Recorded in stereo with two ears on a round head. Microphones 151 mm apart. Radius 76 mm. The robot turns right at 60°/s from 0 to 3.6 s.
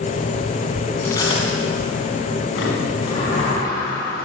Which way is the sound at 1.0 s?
15° left (ahead or behind).